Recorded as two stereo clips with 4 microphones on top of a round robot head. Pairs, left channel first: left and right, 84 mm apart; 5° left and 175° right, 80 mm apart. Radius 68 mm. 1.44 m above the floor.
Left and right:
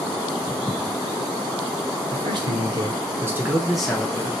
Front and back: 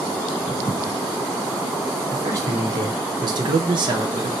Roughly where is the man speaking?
Behind right.